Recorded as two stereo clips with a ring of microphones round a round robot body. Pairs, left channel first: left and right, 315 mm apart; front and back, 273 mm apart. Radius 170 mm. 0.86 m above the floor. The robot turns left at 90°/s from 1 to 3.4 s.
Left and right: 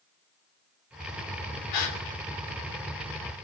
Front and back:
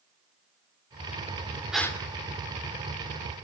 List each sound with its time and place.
1.7 s a gasp: 95° left, 3 m; by 2.0 s 70° left, 3 m